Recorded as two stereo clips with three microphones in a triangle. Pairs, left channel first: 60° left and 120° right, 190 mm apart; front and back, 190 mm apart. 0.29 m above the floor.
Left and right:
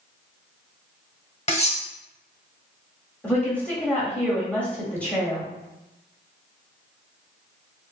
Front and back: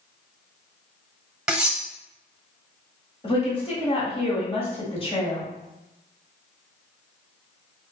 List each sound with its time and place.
1.5 s cutlery clinking: 95° left, 0.9 m
3.2 s a woman speaking: 15° right, 1.6 m